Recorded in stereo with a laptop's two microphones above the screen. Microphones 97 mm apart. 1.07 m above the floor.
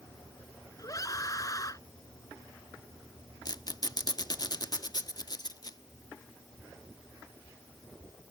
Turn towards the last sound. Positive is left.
turn(degrees=45)  # may be behind; listen again after turning